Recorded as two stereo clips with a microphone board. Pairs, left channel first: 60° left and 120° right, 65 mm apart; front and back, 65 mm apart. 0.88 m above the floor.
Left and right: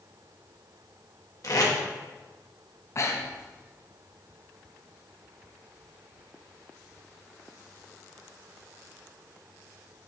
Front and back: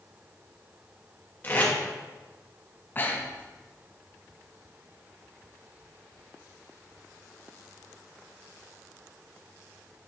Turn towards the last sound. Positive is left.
turn(degrees=45)